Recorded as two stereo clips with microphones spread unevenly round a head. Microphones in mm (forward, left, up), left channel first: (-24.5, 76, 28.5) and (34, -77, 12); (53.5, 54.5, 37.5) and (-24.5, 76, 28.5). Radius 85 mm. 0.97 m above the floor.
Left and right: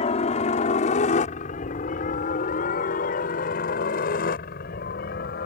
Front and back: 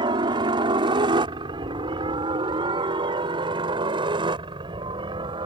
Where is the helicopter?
160° left; by 5.5 s 145° left.